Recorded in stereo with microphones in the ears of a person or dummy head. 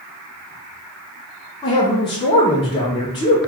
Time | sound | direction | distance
1.6 | a man speaking | 25° left (ahead or behind) | 0.7 m